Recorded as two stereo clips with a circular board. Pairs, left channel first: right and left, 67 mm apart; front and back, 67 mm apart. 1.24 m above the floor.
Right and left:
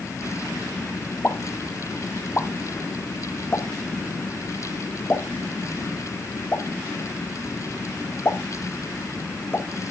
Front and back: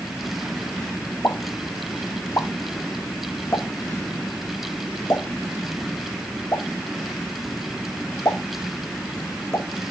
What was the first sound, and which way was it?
A pop, 35° right.